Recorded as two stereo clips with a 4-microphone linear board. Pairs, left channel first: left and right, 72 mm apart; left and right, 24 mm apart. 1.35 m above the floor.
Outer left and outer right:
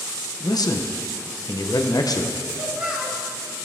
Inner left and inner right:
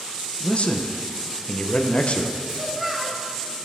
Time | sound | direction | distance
0.4 | a man speaking | 60° left (ahead or behind) | 0.9 m
2.5 | a child speaking | 15° right (ahead or behind) | 3 m